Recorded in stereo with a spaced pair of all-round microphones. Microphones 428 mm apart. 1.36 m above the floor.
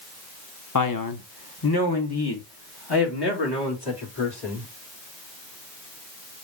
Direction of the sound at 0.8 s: 45° left (ahead or behind).